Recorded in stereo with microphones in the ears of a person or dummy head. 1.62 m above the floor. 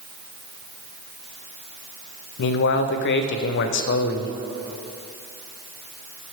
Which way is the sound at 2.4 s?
60° left (ahead or behind).